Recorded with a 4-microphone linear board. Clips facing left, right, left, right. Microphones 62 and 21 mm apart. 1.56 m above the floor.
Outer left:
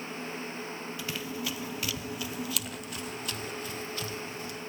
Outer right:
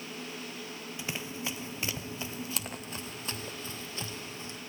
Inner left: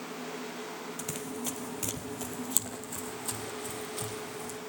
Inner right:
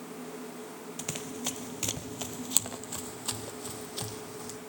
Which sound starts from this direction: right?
Running footsteps, at 1.0 s.